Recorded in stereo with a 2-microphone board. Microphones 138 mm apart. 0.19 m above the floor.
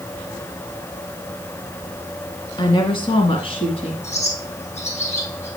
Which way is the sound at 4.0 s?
55° left (ahead or behind).